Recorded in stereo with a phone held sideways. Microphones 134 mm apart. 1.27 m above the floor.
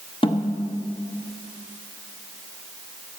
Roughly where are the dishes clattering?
No dishes clattering in this recording.